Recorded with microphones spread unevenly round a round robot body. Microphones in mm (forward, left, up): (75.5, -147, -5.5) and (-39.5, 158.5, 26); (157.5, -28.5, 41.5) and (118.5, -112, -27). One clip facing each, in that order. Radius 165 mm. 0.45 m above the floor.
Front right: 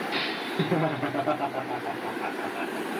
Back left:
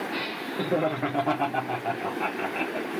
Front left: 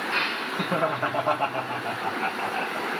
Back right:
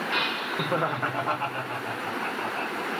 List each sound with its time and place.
0.1 s laughter: 100° right, 1.1 m; by 2.9 s 130° left, 1.4 m